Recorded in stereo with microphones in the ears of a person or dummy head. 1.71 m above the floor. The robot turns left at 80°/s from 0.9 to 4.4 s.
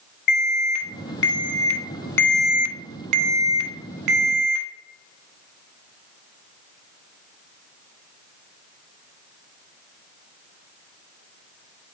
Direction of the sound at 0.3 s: 120° left.